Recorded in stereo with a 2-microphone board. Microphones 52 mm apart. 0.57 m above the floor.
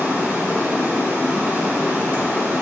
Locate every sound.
0.0 s running water: 55° right (ahead or behind), 1.8 m